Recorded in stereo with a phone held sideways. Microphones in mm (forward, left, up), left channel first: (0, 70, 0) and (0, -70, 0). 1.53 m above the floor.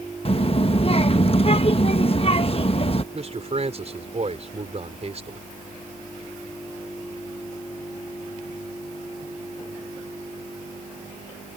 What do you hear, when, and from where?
0.2 s a child speaking: 45° left (ahead or behind)
3.1 s a man speaking: 50° right (ahead or behind)